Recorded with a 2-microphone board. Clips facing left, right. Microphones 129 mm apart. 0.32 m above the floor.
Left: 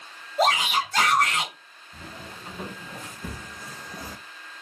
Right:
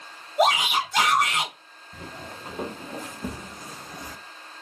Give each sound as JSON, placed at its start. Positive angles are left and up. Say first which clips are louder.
{"t": 0.4, "sound": "a shout", "louder": "right 1 dB", "side_deg": -15, "distance_m": 1.4}
{"t": 1.9, "sound": "footsteps", "louder": "right 2 dB", "side_deg": -55, "distance_m": 3.0}